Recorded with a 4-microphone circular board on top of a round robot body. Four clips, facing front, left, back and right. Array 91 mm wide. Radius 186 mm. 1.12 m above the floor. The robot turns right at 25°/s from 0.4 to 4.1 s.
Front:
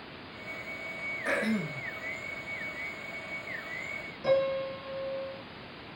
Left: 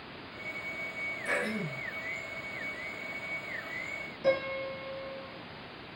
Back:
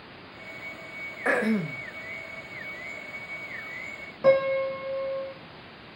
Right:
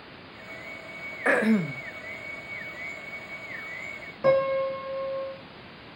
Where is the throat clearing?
125° right, 1.7 m; by 1.8 s 110° right, 1.7 m.